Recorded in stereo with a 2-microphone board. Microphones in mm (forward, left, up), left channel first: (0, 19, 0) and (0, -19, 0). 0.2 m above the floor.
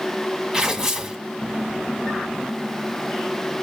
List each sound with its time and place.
0.5 s tearing paper: 10° right (ahead or behind), 1.5 m